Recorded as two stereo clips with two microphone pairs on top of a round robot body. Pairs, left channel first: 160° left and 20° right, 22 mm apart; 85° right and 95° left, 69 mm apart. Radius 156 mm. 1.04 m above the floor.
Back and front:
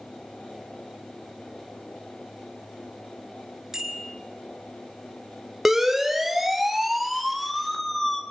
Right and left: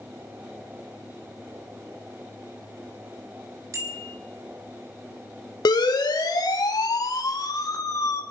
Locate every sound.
3.7 s a bicycle bell: 50° left, 4 m
5.7 s a siren: 100° right, 4.5 m; by 8.2 s 125° right, 4 m